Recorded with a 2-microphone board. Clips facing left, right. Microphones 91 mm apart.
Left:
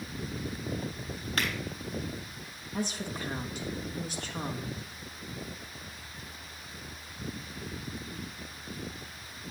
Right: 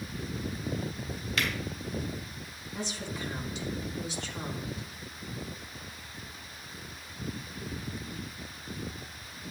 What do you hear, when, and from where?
1.4 s a finger snap: 50° left (ahead or behind), 3.5 m
2.7 s a woman speaking: 45° left (ahead or behind), 1.4 m